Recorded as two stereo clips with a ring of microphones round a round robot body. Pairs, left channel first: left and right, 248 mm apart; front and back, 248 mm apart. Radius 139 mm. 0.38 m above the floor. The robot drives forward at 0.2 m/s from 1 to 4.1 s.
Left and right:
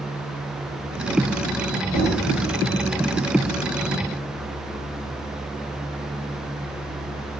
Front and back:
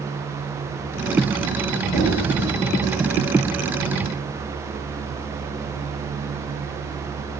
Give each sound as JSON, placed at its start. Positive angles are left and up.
{"t": 1.9, "sound": "knocking", "azimuth_deg": 70, "distance_m": 1.8}